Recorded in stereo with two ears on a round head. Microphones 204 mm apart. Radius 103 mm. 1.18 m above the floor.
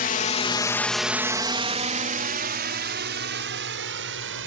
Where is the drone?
40° left (ahead or behind); by 4.5 s 60° right (ahead or behind).